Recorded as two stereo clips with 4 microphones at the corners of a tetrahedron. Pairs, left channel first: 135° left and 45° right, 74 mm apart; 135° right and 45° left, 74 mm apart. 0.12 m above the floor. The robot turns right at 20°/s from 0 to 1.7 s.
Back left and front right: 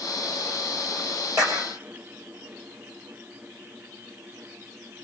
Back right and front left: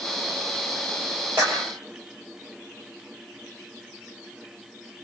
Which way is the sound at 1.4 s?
10° right.